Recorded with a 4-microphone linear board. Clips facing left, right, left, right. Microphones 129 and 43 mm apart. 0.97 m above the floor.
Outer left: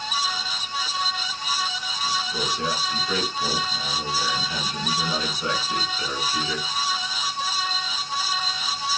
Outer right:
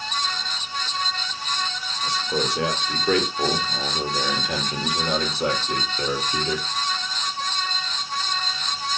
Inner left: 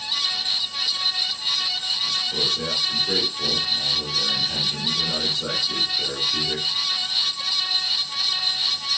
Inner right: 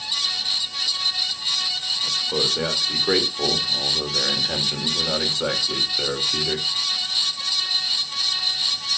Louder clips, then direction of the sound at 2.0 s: Outer right 3 dB, inner right 3 dB; 75° right (ahead or behind).